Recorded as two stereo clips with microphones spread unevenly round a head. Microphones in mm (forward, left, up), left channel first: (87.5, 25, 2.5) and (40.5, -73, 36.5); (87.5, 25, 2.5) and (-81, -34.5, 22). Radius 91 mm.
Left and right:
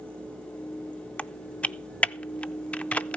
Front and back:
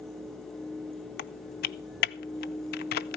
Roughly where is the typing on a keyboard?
Ahead.